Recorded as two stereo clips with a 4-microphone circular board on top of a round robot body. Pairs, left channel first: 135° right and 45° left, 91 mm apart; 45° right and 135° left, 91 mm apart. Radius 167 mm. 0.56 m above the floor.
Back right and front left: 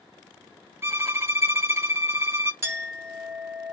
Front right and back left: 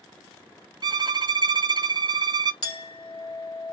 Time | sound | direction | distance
0.8 | a violin | 100° left | 1.3 m
2.6 | a clink | 15° right | 2 m